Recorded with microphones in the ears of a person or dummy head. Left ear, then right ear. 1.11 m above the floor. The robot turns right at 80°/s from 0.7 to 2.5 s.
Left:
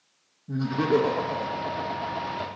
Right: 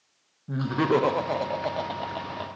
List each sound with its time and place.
0.5 s laughter: 40° right (ahead or behind), 0.7 m; by 2.6 s 5° left (ahead or behind), 0.7 m